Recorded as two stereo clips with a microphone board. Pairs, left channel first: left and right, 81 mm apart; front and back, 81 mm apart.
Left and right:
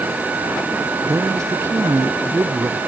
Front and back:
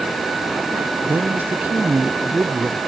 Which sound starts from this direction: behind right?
A woman speaking, at 1.0 s.